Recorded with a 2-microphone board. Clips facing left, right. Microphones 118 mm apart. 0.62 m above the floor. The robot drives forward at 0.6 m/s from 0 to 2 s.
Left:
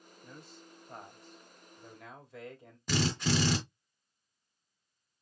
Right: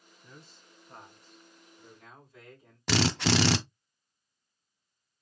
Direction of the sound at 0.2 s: 40° left (ahead or behind).